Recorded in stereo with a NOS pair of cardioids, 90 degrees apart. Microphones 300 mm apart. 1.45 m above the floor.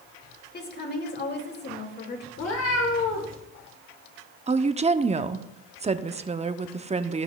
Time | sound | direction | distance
0.5 | a woman speaking | 35° left | 2.5 m
2.4 | a cat meowing | 55° left | 3 m
4.5 | a woman speaking | 20° right | 0.6 m